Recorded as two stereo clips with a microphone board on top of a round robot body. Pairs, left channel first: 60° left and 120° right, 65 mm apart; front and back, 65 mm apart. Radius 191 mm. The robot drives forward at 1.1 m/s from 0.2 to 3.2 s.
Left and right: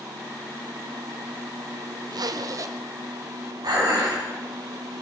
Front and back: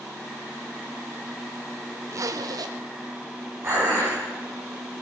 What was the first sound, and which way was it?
A zipper, 135° right.